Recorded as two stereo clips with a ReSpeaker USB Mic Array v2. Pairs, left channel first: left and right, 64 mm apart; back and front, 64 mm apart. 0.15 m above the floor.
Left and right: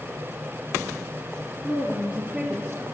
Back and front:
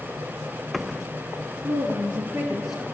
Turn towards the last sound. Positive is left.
turn(degrees=-90)